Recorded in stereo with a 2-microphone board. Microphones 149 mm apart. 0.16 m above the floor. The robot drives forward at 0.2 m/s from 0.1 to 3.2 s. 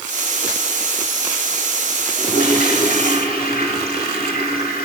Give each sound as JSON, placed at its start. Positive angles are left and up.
{"t": 2.2, "sound": "a toilet flushing", "side_deg": 75, "distance_m": 7.0}